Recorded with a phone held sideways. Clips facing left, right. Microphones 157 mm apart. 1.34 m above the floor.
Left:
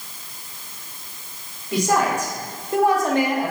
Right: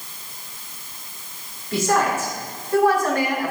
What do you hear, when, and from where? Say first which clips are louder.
1.7 s a woman speaking: even; 15° left (ahead or behind), 3.5 m; by 3.5 s 25° left (ahead or behind), 1.6 m